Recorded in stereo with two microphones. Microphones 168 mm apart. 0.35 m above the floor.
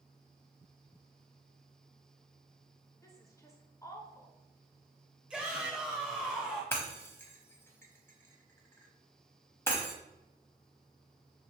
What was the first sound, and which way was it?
A woman speaking, 20° left (ahead or behind).